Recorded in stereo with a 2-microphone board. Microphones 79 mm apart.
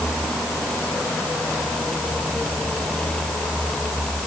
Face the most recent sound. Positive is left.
No sound to turn to.